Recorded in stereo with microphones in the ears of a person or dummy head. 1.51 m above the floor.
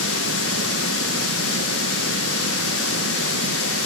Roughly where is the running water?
Left.